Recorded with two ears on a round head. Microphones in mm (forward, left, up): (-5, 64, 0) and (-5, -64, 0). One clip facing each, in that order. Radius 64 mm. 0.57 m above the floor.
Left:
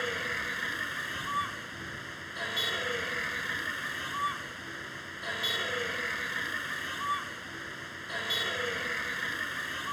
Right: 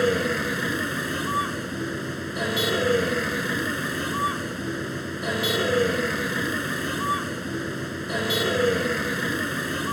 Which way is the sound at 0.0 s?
60° right (ahead or behind).